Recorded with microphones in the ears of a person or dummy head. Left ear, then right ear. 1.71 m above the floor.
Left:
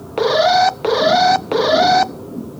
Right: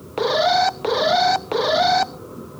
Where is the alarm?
5° left (ahead or behind), 0.5 m.